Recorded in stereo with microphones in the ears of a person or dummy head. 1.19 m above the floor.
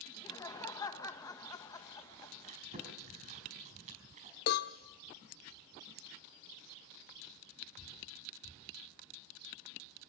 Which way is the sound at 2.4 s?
40° right (ahead or behind).